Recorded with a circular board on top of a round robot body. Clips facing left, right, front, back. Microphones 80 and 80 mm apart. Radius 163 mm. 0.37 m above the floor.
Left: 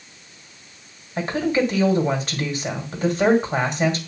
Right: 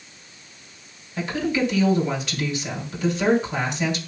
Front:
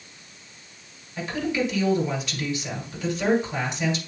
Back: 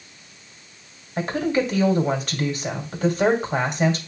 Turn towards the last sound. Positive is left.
turn(degrees=140)